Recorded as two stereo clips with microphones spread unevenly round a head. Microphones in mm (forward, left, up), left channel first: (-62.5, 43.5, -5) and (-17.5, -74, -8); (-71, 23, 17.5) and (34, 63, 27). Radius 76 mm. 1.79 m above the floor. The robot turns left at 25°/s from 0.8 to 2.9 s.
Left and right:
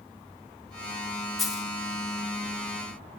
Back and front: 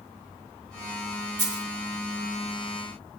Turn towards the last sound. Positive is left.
turn(degrees=-15)